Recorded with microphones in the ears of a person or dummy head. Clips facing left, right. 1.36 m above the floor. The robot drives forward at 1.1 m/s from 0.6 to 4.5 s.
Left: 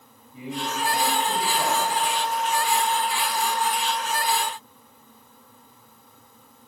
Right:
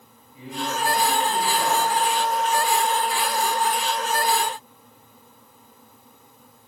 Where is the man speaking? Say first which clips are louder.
Right 1 dB; 15° left (ahead or behind), 7.5 m; by 2.0 s 10° left (ahead or behind), 9 m.